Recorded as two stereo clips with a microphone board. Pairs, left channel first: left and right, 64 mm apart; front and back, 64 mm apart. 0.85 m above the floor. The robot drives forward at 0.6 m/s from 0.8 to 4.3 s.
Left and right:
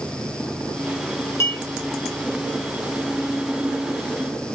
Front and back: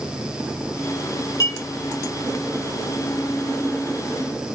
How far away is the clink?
About 1.8 m.